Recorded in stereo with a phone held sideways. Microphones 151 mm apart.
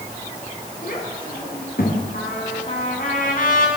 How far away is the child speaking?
About 8 m.